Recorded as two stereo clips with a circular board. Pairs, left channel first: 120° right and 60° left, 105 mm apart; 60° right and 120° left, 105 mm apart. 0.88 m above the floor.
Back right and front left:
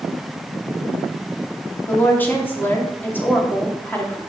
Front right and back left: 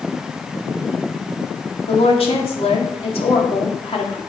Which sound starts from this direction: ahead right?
A woman speaking, at 1.9 s.